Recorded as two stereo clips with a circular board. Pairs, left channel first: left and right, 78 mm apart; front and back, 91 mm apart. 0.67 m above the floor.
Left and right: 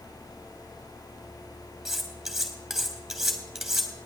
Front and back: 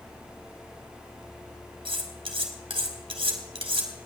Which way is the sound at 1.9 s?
175° right.